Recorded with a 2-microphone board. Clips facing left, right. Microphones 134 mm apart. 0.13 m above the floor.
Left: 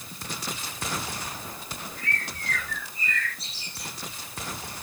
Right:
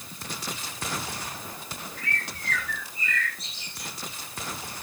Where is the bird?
30° left (ahead or behind), 7.5 m.